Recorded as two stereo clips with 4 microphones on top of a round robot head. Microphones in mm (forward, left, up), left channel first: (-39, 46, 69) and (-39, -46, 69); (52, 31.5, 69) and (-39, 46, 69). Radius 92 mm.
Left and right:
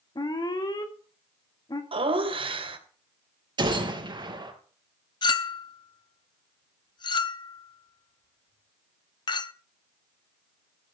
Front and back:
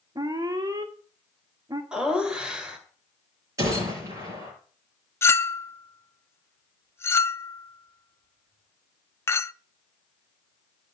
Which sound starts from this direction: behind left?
An alarm, at 0.1 s.